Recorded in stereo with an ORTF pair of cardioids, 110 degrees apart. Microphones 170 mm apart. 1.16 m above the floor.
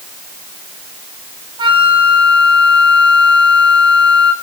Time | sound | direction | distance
1.6 | a flute | 30° right | 3 m